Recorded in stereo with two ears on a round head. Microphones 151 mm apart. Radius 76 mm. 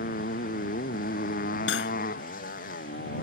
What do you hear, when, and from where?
0.0 s a motorcycle: 55° left (ahead or behind)
1.7 s cutlery clinking: 80° left